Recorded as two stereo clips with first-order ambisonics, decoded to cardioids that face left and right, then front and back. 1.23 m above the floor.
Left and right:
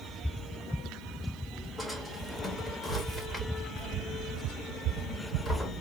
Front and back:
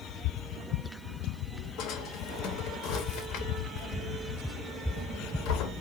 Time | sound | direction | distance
1.8 | a drawer | 5° left | 0.6 m